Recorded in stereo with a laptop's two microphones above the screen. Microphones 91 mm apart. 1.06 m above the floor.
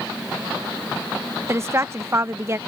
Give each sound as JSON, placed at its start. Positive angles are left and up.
{"t": 1.5, "sound": "a woman speaking", "side_deg": -30}